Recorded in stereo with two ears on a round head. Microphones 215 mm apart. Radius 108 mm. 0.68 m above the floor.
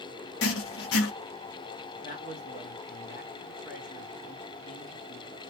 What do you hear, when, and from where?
0.4 s writing: 55° left (ahead or behind), 0.7 m
2.0 s a man speaking: 35° left (ahead or behind), 1.2 m